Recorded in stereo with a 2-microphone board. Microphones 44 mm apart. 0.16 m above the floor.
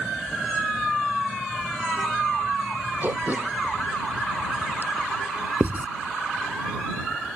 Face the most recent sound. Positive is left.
turn(degrees=-40)  # may be behind; listen again after turning